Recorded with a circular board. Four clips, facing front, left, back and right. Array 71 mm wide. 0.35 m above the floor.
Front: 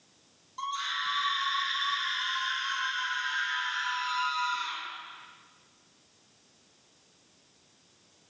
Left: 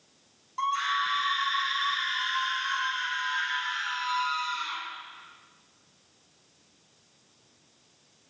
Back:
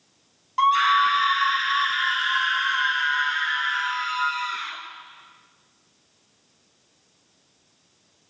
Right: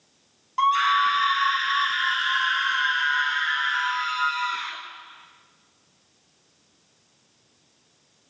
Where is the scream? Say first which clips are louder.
Right 8 dB, back 16 dB; 150° right, 3.5 m; by 4.8 s 130° right, 5.5 m.